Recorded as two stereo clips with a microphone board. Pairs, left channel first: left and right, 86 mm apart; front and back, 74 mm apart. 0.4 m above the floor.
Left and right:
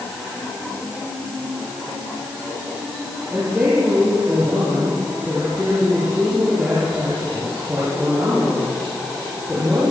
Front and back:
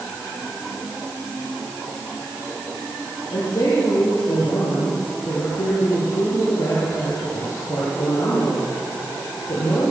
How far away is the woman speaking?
About 9 m.